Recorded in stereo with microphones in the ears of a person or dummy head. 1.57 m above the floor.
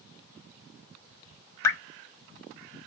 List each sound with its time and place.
1.6 s dripping: 15° left (ahead or behind), 1.0 m